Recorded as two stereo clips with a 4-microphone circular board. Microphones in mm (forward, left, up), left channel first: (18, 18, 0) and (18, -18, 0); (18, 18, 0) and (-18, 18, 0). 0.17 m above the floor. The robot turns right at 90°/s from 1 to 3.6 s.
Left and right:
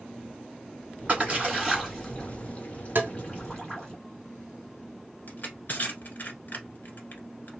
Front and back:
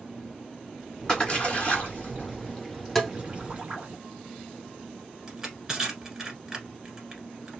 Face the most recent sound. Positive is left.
turn(degrees=110)